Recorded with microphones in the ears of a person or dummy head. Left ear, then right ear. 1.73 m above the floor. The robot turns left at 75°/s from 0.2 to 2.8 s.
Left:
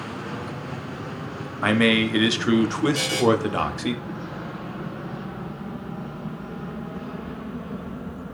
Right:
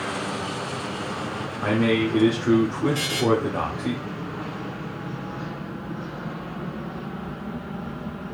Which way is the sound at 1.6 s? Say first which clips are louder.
Left 3 dB; 120° left.